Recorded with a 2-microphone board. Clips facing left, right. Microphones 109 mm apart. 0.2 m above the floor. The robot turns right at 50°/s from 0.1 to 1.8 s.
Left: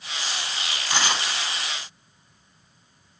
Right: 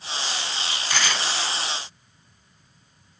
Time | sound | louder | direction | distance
0.9 | tearing paper | left 1 dB | 15° left (ahead or behind) | 1.5 m